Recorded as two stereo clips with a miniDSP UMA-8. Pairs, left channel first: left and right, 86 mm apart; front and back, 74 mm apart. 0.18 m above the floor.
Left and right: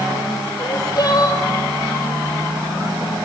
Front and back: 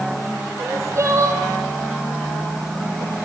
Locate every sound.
0.6 s crying: 130° left, 3 m